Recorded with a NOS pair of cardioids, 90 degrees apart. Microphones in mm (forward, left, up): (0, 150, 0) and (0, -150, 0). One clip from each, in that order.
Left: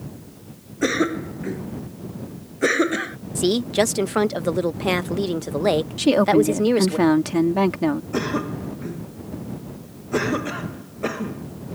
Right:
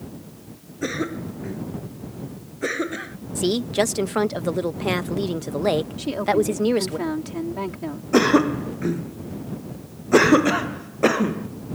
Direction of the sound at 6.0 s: 65° left.